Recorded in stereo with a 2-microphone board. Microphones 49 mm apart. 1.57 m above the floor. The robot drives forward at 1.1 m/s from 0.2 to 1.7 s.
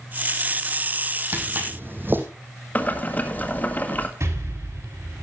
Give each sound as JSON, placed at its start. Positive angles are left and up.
{"t": 1.3, "sound": "footsteps", "side_deg": -40, "distance_m": 3.0}
{"t": 2.8, "sound": "boiling", "side_deg": 35, "distance_m": 1.8}
{"t": 4.2, "sound": "an explosion", "side_deg": -75, "distance_m": 5.0}